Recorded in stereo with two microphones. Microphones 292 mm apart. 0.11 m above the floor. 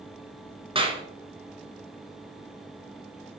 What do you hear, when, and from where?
0.8 s a clap: 20° right (ahead or behind), 0.9 m